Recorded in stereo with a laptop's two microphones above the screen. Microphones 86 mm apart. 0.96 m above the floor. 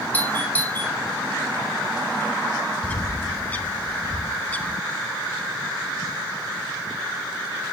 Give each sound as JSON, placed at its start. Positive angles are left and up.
{"t": 0.1, "sound": "a doorbell", "side_deg": 20, "distance_m": 5.0}
{"t": 2.8, "sound": "a bird", "side_deg": 15, "distance_m": 0.7}